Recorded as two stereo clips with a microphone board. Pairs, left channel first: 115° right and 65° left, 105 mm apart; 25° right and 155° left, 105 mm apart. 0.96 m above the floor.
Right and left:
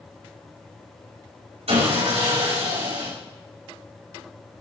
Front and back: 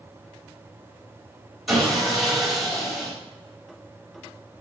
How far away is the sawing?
About 4 m.